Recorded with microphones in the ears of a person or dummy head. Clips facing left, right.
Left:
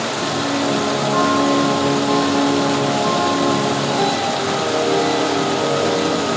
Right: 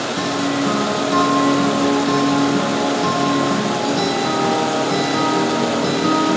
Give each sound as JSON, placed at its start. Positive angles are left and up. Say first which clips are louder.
{"t": 0.2, "sound": "a guitar", "louder": "right 2 dB", "side_deg": -90, "distance_m": 2.0}